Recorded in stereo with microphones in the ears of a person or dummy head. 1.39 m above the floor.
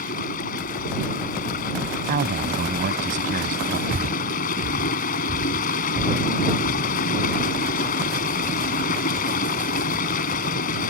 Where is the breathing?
50° right (ahead or behind).